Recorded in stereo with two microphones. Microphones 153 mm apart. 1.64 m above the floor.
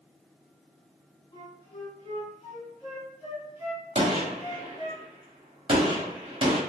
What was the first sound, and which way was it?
A flute, 40° left (ahead or behind).